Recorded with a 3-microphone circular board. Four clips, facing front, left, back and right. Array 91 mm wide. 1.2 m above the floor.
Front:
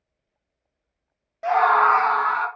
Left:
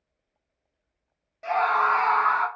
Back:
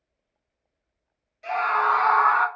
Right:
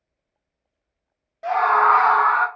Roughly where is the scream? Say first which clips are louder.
Right 6 dB, front 6 dB; ahead.